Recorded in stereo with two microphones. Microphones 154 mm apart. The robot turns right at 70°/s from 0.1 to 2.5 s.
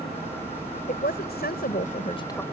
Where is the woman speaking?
55° left; by 2.4 s 165° left.